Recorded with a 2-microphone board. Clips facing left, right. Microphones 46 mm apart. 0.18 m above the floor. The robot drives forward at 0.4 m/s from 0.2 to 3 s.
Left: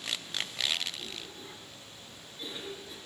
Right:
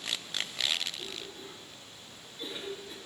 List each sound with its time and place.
1.0 s a cough: 5° right (ahead or behind), 2 m